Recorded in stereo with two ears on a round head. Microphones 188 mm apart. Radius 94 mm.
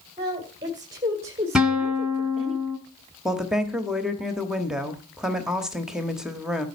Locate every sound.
0.2 s a woman speaking: 25° right (ahead or behind), 2.5 m; by 2.5 s centre (ahead or behind), 1.5 m
1.6 s a guitar: 5° right (ahead or behind), 1.7 m
3.2 s a woman speaking: 5° right (ahead or behind), 1.1 m